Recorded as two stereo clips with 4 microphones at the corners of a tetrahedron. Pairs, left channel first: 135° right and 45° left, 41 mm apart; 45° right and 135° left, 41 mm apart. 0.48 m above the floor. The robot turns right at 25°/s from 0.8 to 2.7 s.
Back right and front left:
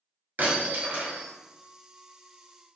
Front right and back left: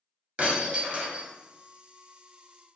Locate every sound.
0.4 s breaking glass: 80° left, 1.3 m; by 1.2 s 95° left, 1.3 m